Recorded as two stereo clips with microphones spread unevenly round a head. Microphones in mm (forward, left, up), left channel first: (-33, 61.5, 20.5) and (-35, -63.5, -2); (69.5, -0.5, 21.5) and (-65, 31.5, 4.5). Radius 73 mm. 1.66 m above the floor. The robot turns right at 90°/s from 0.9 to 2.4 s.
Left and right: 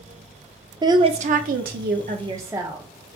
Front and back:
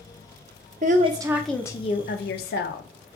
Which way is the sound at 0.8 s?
150° right.